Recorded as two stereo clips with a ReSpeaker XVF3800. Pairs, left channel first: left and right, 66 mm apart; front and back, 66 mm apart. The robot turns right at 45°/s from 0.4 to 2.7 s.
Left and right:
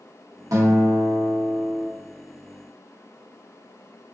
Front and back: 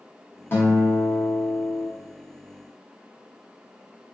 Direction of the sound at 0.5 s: 60° right.